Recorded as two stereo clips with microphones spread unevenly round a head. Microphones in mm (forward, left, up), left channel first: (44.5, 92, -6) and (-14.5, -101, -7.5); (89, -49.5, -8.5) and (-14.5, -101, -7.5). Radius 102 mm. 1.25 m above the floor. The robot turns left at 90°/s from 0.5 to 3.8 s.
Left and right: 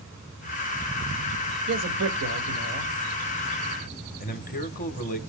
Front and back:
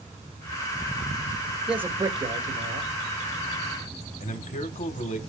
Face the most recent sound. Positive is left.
turn(degrees=25)